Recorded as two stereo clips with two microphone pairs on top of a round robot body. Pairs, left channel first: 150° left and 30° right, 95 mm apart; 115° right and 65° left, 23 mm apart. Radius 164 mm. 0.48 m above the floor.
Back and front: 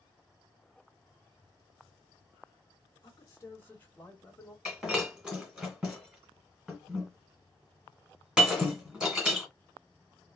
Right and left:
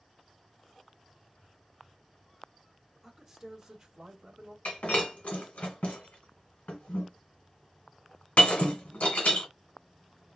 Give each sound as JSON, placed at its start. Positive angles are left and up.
{"t": 3.0, "sound": "a man speaking", "azimuth_deg": 135, "distance_m": 1.5}
{"t": 4.7, "sound": "breaking glass", "azimuth_deg": -110, "distance_m": 1.8}